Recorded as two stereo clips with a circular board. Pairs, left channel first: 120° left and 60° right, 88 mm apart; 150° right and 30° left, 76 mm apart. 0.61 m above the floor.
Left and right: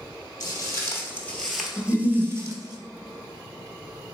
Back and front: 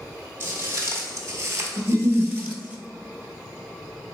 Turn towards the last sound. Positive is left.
turn(degrees=55)